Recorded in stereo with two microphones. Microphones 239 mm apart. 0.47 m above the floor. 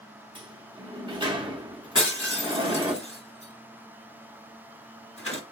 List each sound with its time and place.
0.3 s a sliding door: 20° right (ahead or behind), 0.9 m
1.9 s breaking glass: 65° left (ahead or behind), 2.5 m